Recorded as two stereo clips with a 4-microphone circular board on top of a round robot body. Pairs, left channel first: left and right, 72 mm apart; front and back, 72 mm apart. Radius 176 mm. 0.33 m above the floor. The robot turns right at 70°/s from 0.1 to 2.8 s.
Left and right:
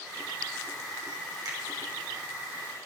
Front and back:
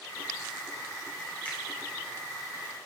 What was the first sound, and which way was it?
A finger snap, 65° right.